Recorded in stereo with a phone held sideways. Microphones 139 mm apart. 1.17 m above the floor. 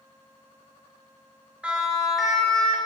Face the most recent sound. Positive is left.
turn(degrees=10)  # may be behind; listen again after turning